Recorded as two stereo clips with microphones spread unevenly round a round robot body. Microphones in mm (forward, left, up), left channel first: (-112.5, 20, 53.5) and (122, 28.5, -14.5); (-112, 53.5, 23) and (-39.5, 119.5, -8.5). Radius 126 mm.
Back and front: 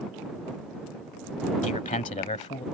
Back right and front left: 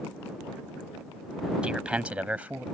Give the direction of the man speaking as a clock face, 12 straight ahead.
8 o'clock.